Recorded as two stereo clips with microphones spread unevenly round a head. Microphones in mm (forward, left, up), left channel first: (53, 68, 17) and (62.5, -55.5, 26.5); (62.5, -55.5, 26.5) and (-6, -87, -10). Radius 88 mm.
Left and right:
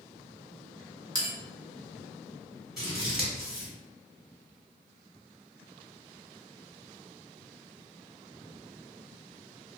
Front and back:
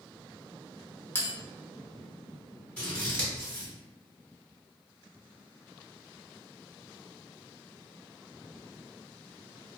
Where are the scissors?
5° right, 1.8 m.